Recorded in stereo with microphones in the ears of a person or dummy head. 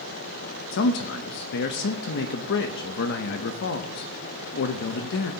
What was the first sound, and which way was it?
A man speaking, 60° left (ahead or behind).